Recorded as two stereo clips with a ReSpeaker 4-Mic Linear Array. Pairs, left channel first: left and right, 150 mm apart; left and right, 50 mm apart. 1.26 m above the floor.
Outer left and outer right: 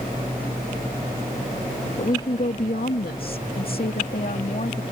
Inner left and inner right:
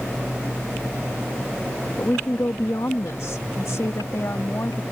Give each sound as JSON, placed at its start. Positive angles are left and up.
{"t": 2.0, "sound": "a woman speaking", "side_deg": 55}